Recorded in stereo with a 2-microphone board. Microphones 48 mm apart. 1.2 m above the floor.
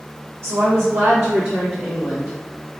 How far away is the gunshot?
No gunshot in this recording.